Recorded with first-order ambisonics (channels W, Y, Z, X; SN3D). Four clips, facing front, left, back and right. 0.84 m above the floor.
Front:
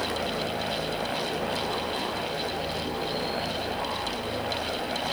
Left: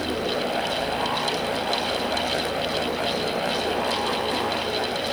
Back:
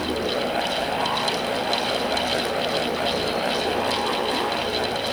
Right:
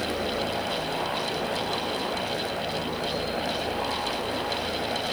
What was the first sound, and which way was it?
Only background noise.